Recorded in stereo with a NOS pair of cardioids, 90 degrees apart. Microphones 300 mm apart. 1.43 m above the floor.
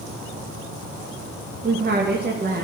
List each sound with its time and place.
1.6 s a woman speaking: 35° right, 2.5 m